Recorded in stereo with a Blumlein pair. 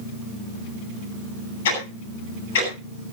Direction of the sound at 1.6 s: 55° left.